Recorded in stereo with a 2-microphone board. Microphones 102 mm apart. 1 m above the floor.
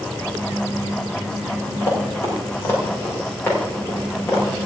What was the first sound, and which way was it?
Running footsteps, 25° left (ahead or behind).